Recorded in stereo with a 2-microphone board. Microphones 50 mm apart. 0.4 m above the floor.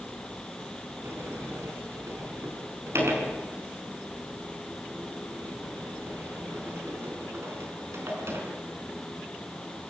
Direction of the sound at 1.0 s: 65° right (ahead or behind).